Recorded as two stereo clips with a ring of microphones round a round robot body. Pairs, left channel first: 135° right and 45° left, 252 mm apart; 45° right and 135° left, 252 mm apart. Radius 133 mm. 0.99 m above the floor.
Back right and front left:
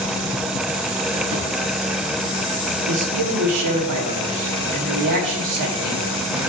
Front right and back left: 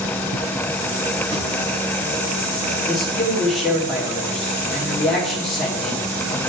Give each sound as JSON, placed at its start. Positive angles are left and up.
{"t": 1.3, "sound": "a drawer", "azimuth_deg": 65, "distance_m": 1.8}
{"t": 2.9, "sound": "a man speaking", "azimuth_deg": 45, "distance_m": 1.9}